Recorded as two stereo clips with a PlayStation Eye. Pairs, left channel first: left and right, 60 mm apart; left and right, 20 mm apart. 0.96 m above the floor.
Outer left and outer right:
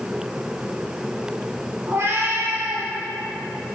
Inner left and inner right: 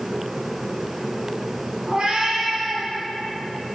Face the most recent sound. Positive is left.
turn(degrees=-45)  # may be behind; listen again after turning